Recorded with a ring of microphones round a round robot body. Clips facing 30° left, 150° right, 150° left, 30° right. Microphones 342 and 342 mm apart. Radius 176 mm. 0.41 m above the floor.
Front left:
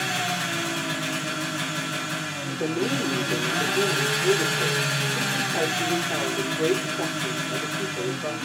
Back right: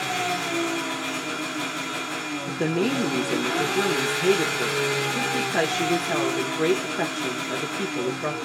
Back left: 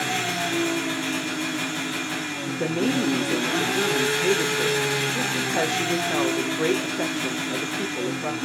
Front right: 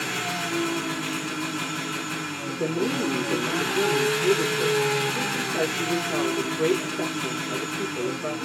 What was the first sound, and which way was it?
An engine running, 65° left.